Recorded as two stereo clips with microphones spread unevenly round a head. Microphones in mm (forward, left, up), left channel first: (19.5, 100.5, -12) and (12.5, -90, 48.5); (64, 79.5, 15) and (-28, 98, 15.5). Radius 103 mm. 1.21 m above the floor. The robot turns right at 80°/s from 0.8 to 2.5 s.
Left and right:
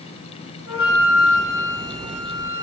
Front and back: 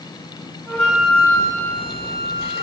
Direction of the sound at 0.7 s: 65° left.